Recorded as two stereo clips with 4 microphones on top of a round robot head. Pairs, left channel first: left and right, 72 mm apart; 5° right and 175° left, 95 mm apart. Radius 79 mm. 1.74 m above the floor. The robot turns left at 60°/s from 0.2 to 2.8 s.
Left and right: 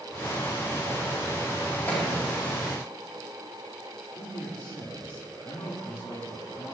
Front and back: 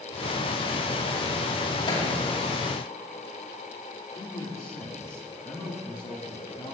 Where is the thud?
25° left, 3.5 m; by 2.1 s 10° left, 3.5 m.